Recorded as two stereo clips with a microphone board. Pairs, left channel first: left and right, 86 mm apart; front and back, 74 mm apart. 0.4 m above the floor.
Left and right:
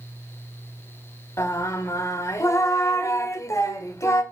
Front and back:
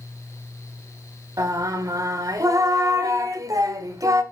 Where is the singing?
145° left, 0.8 m.